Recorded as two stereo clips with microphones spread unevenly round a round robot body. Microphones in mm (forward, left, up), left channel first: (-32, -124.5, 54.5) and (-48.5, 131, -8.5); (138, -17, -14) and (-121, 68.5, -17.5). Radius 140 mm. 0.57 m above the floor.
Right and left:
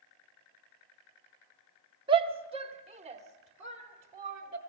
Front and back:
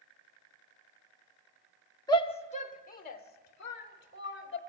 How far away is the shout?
About 1.1 m.